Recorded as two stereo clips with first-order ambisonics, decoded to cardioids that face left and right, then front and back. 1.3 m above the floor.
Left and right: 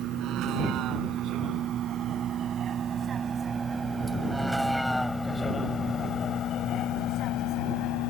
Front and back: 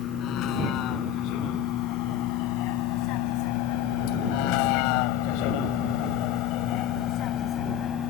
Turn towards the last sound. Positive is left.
turn(degrees=60)